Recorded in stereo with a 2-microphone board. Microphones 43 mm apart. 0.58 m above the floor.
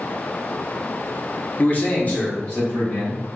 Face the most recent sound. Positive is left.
turn(degrees=35)  # may be behind; listen again after turning